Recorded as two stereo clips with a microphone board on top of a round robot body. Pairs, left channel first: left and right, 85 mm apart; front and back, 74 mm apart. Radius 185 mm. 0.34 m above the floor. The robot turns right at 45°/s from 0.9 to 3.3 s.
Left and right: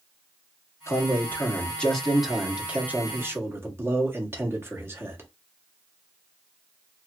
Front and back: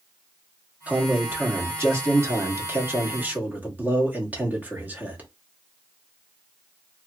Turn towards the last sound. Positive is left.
turn(degrees=-130)